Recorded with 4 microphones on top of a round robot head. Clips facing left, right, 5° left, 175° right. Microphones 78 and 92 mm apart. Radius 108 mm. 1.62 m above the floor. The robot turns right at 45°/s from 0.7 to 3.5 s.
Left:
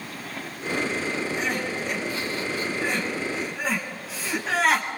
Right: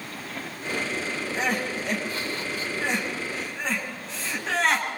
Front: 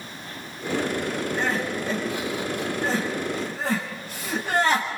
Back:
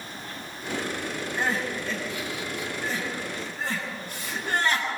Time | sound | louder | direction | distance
1.4 | crying | even, back 1 dB | 95° right | 7.5 m